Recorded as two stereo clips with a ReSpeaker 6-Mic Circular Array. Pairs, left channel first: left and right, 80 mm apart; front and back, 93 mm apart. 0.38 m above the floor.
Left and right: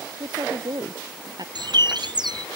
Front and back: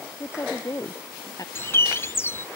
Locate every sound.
0.2 s a woman speaking: 60° right; by 1.4 s 55° right
1.6 s a bird: 65° right